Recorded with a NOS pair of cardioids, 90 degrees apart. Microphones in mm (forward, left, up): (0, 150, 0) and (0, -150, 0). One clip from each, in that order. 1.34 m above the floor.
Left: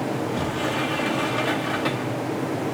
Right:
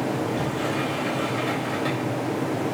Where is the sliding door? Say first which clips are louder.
Left 1 dB; 30° left, 3 m.